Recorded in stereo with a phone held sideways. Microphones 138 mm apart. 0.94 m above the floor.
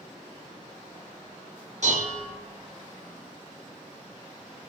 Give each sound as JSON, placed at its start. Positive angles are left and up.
{"t": 1.8, "sound": "dishes clattering", "side_deg": -55, "distance_m": 1.5}